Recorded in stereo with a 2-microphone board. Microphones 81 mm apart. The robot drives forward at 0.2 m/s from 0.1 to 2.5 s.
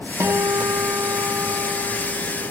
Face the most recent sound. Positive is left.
turn(degrees=-45)  # may be behind; listen again after turning